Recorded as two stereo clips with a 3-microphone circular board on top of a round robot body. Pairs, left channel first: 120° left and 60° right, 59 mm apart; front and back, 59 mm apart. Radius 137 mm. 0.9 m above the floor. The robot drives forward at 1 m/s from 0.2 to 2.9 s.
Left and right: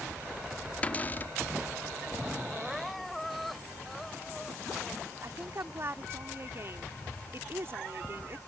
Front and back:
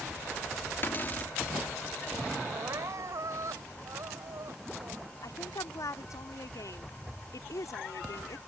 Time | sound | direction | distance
0.8 | a cupboard door | 50° left | ?
2.5 | crying | 150° right | ?
5.2 | a woman speaking | 15° right | ?